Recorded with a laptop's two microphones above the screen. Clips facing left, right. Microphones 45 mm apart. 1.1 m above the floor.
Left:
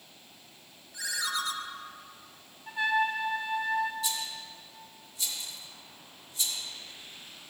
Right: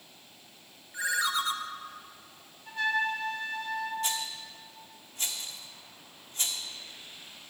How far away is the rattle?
About 1.8 m.